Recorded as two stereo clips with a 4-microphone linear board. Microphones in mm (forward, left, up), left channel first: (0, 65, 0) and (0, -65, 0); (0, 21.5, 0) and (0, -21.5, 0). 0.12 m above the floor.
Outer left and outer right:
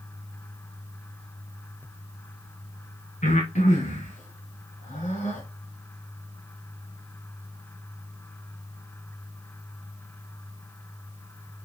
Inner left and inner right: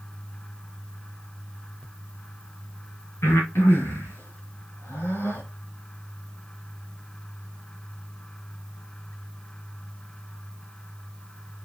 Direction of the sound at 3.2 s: 70° left (ahead or behind).